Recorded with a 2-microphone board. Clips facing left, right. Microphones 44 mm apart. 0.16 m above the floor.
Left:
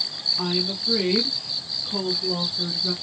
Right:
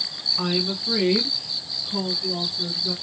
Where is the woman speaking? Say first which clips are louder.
Right 2 dB; 30° right (ahead or behind), 1.2 m; by 2.9 s 35° left (ahead or behind), 1.7 m.